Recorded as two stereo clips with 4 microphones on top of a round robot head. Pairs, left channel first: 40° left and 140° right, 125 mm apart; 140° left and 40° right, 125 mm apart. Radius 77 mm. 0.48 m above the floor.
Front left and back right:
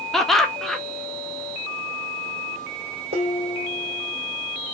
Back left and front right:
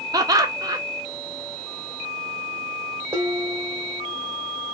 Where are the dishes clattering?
110° right, 1.8 m.